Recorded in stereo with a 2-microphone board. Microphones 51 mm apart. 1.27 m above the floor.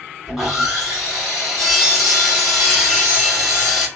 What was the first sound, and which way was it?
Sawing, 10° right (ahead or behind).